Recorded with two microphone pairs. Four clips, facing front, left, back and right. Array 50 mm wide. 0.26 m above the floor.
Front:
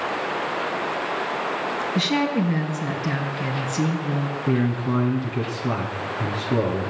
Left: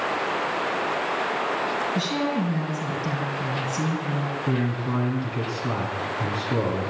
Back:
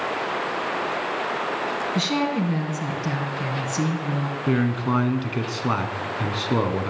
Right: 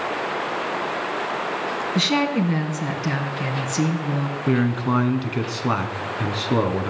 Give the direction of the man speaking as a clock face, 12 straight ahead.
4 o'clock.